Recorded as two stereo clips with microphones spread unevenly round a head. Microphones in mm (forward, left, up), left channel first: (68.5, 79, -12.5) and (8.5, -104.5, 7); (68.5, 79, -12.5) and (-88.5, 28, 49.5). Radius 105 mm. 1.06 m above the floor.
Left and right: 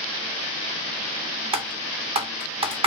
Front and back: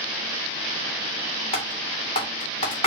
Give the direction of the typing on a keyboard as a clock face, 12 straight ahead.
2 o'clock.